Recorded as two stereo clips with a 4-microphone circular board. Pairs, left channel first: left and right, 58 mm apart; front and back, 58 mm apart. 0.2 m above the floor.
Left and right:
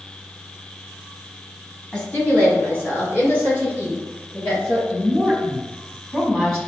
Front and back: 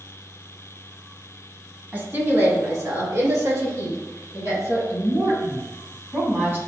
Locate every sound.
1.9 s a woman speaking: 145° left, 1.1 m; by 4.8 s 150° left, 4.5 m
4.9 s a woman speaking: 170° left, 1.3 m